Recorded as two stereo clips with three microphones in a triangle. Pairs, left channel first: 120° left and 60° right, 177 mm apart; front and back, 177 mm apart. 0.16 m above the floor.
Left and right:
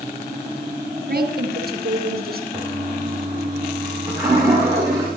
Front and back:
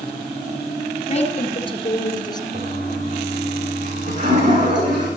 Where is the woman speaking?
50° right, 2.5 m; by 2.4 s 65° right, 2.5 m.